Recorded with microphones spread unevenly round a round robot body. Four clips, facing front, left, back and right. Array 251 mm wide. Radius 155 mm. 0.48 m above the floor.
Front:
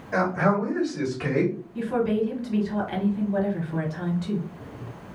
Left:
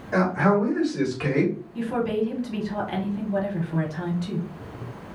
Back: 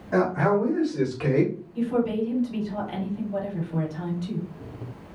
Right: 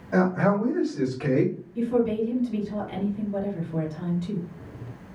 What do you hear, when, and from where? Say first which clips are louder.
0.1 s a man speaking: left 1 dB, back 1 dB; 155° left, 1.8 m; by 1.6 s 115° left, 1.7 m
1.8 s a woman speaking: right 3 dB, even; 50° left, 1.4 m